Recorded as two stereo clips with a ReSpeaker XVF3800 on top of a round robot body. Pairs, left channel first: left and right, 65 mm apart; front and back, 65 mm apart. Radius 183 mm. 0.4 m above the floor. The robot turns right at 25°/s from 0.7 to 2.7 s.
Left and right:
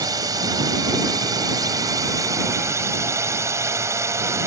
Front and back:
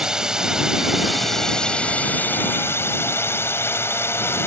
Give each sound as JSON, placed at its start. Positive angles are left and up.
{"t": 0.0, "sound": "a drone", "azimuth_deg": -100}